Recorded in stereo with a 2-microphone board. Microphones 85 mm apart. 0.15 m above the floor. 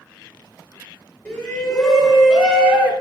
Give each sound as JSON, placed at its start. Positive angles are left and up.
{"t": 1.2, "sound": "a shout", "side_deg": 15, "distance_m": 2.5}